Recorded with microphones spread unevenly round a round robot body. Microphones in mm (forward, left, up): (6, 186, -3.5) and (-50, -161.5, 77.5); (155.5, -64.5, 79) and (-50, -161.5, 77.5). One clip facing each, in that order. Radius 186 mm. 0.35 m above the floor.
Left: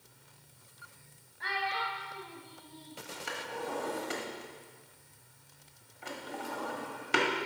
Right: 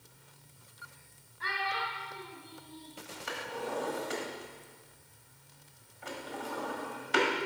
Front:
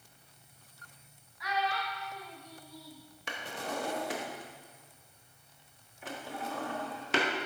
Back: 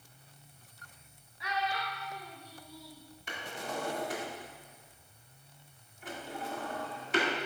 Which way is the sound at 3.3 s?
35° left.